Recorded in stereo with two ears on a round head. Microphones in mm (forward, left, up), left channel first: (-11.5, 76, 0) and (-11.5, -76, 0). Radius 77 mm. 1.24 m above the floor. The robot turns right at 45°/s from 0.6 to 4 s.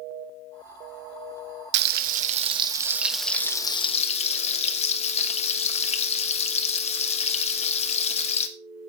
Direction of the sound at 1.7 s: 65° right.